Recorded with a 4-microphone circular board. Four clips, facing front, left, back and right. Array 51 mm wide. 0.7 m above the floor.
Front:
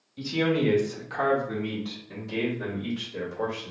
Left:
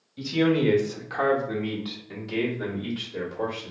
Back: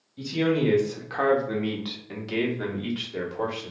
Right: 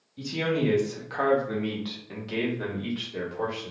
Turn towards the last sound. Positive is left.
turn(degrees=-160)